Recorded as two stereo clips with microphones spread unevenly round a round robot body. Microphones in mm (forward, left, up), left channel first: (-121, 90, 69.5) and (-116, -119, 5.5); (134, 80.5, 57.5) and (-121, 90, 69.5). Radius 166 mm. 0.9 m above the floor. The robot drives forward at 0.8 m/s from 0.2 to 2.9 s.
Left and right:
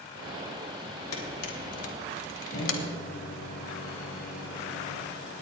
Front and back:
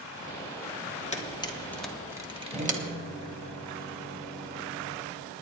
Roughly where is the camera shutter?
Ahead left.